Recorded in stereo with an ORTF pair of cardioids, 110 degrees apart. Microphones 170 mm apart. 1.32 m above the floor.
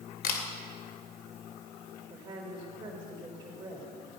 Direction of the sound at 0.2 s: 70° left.